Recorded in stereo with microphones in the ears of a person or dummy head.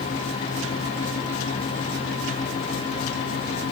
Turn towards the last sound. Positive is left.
No sound to turn to.